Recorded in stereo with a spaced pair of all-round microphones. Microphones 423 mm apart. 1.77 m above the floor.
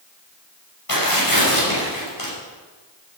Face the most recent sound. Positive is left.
turn(degrees=55)  # may be behind; listen again after turning